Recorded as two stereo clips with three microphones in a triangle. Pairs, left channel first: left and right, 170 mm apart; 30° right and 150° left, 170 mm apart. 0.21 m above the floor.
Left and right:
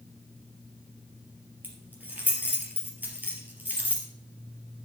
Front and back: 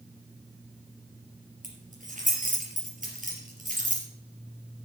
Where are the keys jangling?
170° right, 3.5 m.